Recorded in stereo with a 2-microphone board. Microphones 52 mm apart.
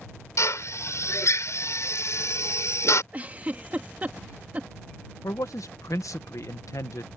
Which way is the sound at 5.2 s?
90° left.